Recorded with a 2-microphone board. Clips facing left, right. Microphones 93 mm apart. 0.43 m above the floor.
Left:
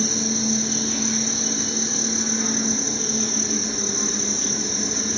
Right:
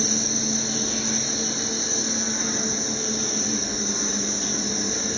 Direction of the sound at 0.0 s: 10° right (ahead or behind).